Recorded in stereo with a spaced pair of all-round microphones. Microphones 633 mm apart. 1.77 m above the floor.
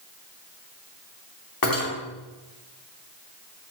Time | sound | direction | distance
1.6 | cutlery clinking | 30° left (ahead or behind) | 3 m